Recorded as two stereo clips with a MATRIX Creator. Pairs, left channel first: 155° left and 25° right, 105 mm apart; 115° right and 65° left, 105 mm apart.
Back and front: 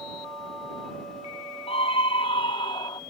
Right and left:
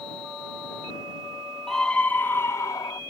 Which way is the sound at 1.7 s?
160° left.